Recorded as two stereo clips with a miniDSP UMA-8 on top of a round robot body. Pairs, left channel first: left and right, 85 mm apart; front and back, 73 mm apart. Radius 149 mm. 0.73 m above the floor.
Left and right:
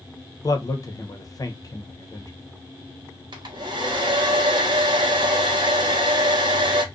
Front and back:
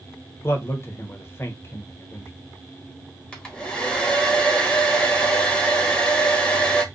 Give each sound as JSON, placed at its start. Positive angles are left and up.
{"t": 0.4, "sound": "a man speaking", "azimuth_deg": 50, "distance_m": 0.8}
{"t": 3.3, "sound": "a hair dryer", "azimuth_deg": -75, "distance_m": 1.0}